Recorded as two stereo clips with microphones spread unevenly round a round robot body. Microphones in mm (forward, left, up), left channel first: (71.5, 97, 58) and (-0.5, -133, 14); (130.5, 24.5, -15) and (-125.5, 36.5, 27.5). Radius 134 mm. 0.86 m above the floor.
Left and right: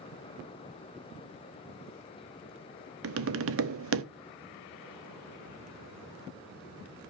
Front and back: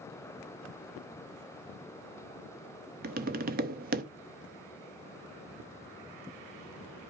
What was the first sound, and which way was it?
Tapping, 120° right.